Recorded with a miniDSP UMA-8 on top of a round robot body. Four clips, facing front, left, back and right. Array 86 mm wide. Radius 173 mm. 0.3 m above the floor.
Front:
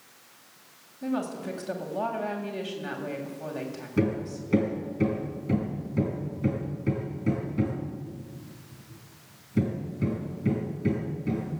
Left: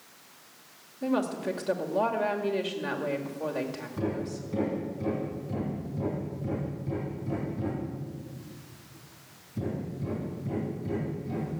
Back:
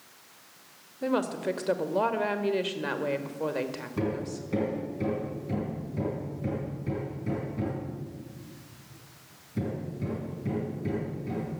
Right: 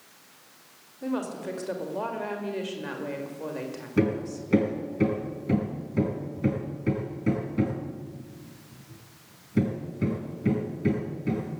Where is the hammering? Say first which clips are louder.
Right 7 dB, front 4 dB; 70° right, 4.5 m.